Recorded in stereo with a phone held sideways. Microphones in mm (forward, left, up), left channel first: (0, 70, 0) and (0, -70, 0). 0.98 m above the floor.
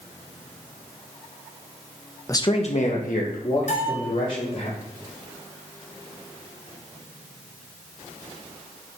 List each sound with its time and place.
2.3 s a man speaking: 20° left (ahead or behind), 0.7 m; by 4.7 s 75° left (ahead or behind), 3 m
3.7 s a bell: 65° left (ahead or behind), 2 m